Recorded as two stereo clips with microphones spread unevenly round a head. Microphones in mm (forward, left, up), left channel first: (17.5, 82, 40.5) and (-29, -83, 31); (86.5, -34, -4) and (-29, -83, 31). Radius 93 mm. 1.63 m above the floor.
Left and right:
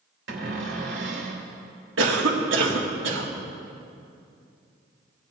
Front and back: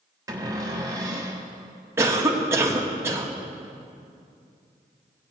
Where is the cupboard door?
95° right, 2.5 m.